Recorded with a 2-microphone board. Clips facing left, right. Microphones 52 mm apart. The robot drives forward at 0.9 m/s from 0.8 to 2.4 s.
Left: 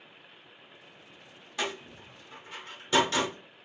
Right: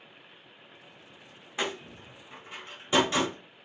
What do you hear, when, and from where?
1.6 s a door slam: 25° right (ahead or behind), 1.0 m; by 3.3 s 15° right (ahead or behind), 1.5 m